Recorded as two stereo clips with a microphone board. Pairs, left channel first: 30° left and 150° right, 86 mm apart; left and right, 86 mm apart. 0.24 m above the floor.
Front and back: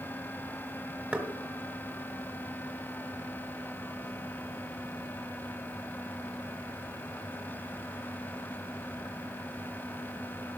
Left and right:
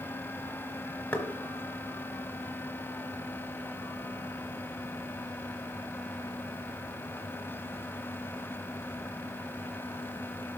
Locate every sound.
1.1 s knocking: 150° left, 1.4 m